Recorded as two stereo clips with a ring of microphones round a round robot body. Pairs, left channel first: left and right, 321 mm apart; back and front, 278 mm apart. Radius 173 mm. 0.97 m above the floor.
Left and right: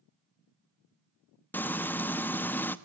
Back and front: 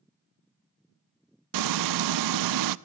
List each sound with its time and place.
1.5 s frying: 5° left, 0.7 m